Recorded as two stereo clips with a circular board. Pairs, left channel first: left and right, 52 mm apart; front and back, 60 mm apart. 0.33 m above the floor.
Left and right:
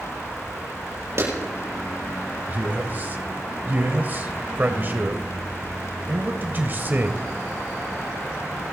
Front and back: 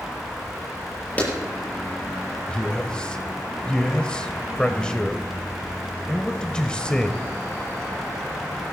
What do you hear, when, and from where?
1.2 s a clap: 65° right, 8 m
2.5 s a man speaking: 65° right, 1.2 m